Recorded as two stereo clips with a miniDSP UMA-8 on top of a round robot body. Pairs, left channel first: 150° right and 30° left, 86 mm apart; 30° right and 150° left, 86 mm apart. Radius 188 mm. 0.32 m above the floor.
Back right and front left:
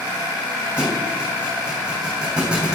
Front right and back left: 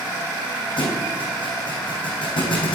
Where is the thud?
50° right, 2.5 m.